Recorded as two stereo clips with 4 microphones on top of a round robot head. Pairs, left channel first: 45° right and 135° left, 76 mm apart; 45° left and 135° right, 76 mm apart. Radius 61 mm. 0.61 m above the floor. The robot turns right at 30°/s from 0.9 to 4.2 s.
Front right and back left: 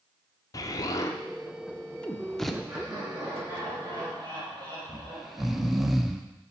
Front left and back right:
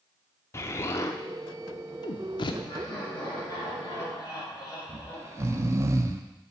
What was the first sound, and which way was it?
An explosion, 5° right.